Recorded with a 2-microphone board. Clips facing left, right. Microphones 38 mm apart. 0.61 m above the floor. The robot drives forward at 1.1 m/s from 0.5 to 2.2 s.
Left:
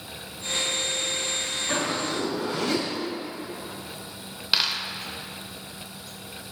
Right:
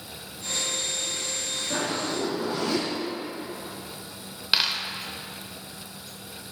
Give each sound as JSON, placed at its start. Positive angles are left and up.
{"t": 1.7, "sound": "a zipper", "side_deg": 85, "distance_m": 3.5}
{"t": 4.5, "sound": "a dropped coin", "side_deg": -5, "distance_m": 0.7}